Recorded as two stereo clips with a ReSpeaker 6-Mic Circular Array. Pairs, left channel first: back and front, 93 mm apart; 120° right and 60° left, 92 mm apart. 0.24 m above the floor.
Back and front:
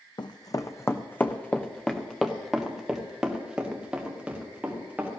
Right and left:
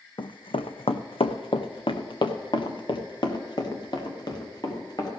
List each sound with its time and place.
0.2 s running footsteps: 145° right, 0.7 m; by 5.1 s 75° right, 3 m